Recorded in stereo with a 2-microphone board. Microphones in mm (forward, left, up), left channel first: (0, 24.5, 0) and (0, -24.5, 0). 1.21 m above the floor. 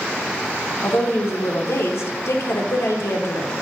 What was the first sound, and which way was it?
A woman speaking, 75° left (ahead or behind).